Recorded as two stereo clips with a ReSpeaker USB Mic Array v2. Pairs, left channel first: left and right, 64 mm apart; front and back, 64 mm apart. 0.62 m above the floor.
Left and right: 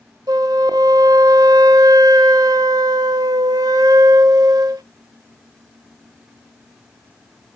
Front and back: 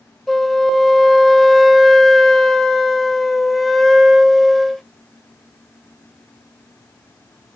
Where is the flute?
90° right, 1.0 m.